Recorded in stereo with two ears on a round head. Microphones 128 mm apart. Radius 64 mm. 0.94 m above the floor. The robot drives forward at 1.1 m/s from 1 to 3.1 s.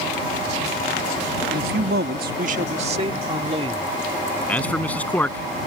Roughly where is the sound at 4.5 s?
Centre.